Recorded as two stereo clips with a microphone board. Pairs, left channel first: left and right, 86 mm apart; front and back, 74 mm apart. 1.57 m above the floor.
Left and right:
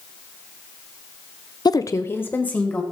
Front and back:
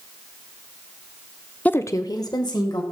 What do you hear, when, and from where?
1.6 s a woman speaking: 65° left, 0.6 m; by 2.8 s 15° left, 1.9 m